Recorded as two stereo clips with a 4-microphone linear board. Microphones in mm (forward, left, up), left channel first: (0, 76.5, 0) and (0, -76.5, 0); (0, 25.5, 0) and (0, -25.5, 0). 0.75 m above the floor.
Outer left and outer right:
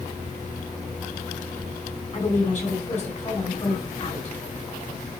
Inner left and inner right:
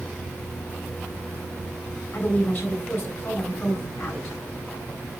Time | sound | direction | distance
2.1 | a woman speaking | 50° left (ahead or behind) | 7 m